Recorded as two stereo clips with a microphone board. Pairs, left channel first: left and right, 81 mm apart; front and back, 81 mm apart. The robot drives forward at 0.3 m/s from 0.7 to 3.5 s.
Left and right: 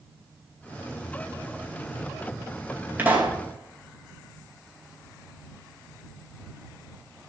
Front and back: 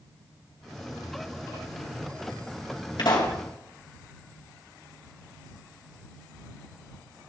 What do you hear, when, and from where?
3.0 s a pop: 25° right, 2.5 m